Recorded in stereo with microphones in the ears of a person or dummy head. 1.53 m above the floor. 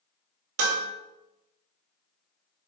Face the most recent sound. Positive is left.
turn(degrees=-75)  # may be behind; listen again after turning